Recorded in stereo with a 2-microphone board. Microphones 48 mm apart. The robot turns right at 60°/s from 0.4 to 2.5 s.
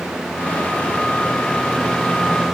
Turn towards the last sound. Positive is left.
No sound to turn to.